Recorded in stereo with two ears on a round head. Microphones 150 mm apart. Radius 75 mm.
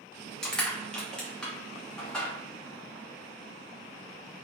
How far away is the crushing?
About 0.7 m.